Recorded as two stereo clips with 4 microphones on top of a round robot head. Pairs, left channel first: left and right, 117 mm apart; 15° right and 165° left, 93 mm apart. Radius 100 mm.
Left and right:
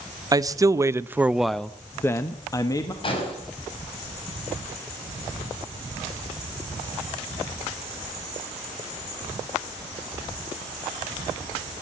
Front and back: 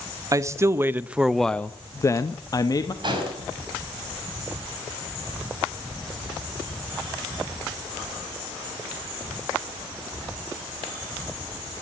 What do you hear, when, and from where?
0.3 s a man speaking: 145° right, 0.9 m; by 2.9 s 30° left, 1.1 m
3.0 s an explosion: 135° left, 5.5 m